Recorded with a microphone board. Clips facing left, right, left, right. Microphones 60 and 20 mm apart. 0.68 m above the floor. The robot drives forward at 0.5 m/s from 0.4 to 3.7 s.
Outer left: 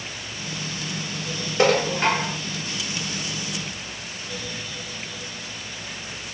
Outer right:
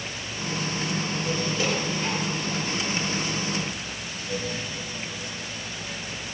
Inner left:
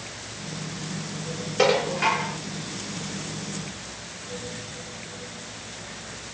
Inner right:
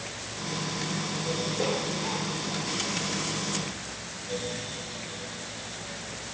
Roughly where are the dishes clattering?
Left.